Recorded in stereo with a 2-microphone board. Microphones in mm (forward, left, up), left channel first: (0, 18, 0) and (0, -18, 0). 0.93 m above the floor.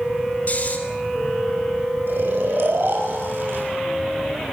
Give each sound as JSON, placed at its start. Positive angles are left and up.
{"t": 0.5, "sound": "snoring", "side_deg": 40, "distance_m": 3.5}
{"t": 2.1, "sound": "snoring", "side_deg": -75, "distance_m": 6.0}